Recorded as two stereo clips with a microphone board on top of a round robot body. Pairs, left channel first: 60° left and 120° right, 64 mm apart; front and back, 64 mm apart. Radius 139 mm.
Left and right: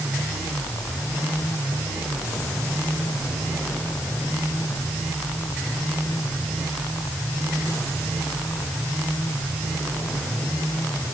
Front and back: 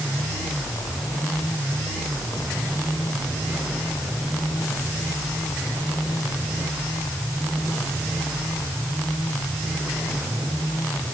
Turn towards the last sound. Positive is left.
No sound to turn to.